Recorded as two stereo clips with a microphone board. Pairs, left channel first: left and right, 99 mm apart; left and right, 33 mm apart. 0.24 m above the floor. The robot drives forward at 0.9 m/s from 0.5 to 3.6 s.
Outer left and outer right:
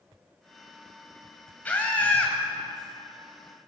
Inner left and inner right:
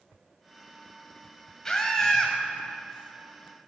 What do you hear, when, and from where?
1.6 s a scream: 15° left (ahead or behind), 1.0 m